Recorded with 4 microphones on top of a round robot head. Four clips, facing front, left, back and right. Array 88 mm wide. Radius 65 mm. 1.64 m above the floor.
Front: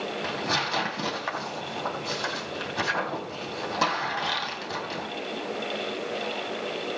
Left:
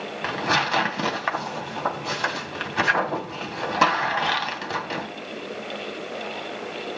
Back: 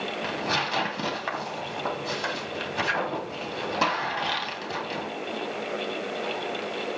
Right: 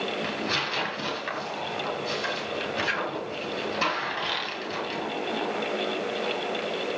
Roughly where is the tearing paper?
Left.